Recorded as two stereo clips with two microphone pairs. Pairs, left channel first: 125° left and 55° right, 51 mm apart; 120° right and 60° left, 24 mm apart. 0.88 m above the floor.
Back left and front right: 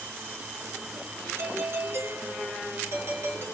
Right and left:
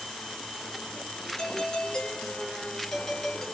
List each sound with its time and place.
1.4 s a doorbell: 60° right, 2.5 m